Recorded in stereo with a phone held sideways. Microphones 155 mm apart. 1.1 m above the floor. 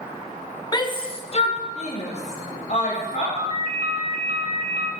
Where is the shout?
25° left (ahead or behind), 0.5 m; by 3.3 s 50° left (ahead or behind), 1.6 m.